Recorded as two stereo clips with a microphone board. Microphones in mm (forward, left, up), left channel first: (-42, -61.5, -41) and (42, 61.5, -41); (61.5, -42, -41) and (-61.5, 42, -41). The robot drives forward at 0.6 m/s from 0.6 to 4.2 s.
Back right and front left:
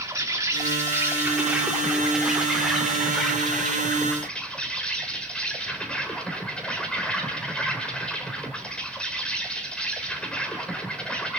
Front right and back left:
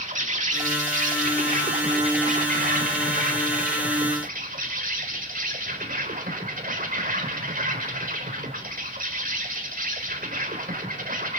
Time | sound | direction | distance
0.0 | an insect | 120° left | 2 m